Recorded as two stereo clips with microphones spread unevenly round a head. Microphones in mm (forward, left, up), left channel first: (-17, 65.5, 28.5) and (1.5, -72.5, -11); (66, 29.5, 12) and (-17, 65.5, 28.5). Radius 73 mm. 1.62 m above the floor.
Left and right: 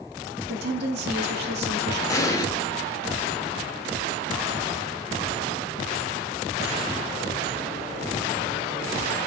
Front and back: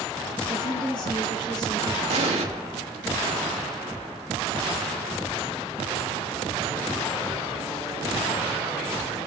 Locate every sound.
0.5 s a woman speaking: 80° right, 1.0 m
2.1 s an explosion: 165° left, 1.1 m